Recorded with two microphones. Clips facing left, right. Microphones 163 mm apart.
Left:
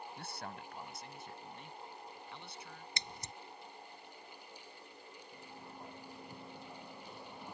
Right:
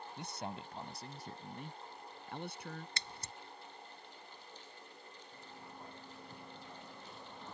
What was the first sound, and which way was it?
A man speaking, 15° right (ahead or behind).